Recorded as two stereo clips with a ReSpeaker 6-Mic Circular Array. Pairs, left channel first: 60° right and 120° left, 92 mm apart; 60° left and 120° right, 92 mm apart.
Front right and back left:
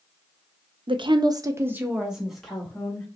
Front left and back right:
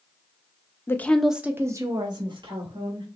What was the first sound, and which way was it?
A woman speaking, 120° left.